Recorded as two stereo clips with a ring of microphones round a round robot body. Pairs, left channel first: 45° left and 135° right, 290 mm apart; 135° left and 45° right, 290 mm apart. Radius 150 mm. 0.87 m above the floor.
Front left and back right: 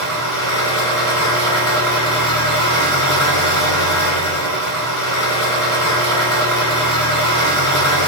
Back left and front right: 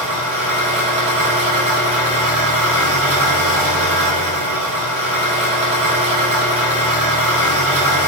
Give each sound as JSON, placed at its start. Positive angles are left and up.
{"t": 0.0, "sound": "an engine running", "azimuth_deg": 25, "distance_m": 1.6}